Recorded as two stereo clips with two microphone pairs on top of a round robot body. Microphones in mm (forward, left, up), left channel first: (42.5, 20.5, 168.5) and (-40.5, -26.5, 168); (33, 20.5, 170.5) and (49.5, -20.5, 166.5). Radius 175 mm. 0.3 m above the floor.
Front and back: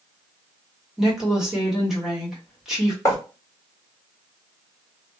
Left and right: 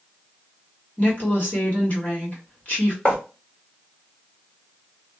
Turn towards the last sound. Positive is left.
turn(degrees=65)